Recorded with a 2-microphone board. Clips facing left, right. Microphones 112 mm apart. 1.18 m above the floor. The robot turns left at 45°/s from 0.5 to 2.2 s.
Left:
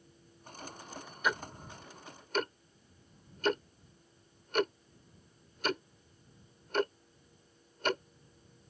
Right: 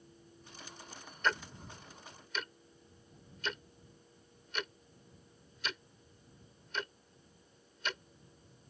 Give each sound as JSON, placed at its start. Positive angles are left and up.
{"t": 1.2, "sound": "ticking", "side_deg": 10}